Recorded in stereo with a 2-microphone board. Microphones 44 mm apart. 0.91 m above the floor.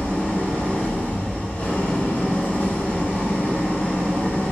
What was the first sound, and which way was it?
An engine running, 35° left (ahead or behind).